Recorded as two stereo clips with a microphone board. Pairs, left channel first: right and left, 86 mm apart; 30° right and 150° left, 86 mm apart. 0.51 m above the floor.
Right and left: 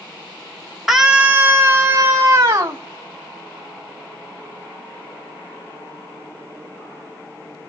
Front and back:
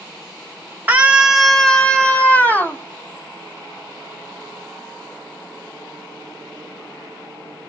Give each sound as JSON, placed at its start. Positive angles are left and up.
{"t": 0.9, "sound": "a scream", "azimuth_deg": 175, "distance_m": 0.9}